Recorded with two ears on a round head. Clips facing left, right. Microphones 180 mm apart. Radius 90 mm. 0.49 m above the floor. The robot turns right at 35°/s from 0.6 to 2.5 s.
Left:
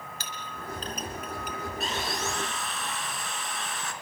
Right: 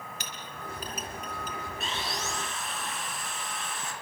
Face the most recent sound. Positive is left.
turn(degrees=60)  # may be behind; listen again after turning